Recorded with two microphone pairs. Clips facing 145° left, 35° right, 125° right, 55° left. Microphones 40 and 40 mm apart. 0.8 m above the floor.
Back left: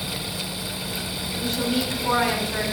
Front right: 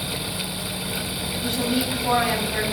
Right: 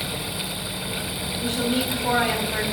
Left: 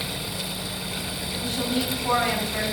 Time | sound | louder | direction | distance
1.4 | a woman speaking | even, right 3 dB | 120° right | 5 m